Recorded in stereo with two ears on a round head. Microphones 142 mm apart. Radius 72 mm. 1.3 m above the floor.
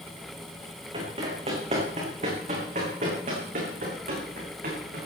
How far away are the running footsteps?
About 6.5 m.